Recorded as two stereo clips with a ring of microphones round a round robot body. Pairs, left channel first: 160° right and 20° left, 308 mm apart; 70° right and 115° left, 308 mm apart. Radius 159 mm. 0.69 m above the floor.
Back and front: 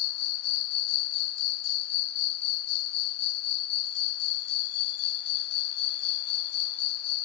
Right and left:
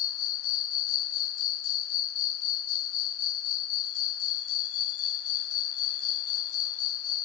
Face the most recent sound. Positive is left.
turn(degrees=-115)